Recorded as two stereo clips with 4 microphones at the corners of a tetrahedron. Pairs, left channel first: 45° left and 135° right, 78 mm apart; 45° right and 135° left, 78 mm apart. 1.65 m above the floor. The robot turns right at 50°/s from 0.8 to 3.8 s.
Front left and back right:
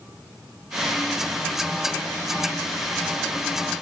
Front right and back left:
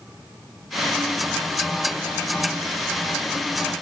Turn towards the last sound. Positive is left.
No sound to turn to.